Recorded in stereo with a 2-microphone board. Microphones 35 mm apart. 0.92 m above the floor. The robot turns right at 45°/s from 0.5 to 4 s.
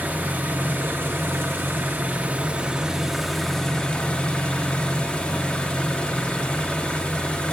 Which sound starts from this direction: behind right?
An engine running, at 0.0 s.